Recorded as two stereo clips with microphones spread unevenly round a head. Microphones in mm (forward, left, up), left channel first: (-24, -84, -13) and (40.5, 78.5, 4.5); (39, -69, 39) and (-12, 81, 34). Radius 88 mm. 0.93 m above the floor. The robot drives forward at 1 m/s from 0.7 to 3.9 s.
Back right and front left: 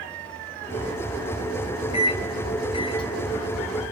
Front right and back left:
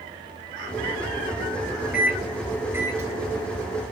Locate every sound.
1.9 s a microwave: 170° right, 1.0 m; by 3.8 s 175° right, 3 m